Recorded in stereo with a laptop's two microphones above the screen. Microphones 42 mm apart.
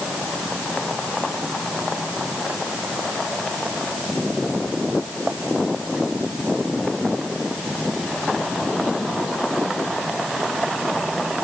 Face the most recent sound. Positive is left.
No sound to turn to.